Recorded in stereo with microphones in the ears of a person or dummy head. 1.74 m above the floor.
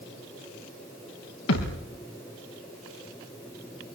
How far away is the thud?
About 7.5 m.